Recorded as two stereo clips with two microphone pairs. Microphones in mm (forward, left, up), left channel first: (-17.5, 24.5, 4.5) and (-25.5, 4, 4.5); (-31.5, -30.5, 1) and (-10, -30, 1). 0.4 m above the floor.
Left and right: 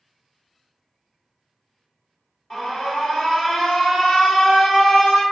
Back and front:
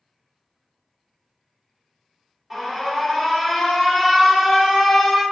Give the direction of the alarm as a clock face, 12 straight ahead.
10 o'clock.